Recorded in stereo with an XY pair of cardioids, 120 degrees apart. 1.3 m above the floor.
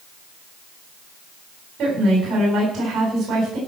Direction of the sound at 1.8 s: 55° right.